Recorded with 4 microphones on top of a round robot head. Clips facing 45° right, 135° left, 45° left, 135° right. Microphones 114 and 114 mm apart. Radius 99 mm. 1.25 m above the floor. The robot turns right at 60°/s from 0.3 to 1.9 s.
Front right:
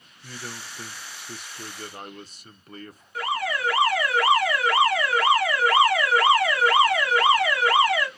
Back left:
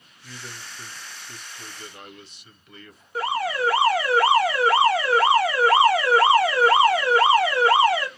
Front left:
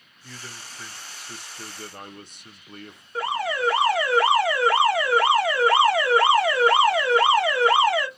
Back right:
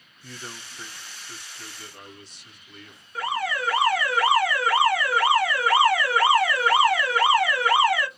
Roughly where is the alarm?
Left.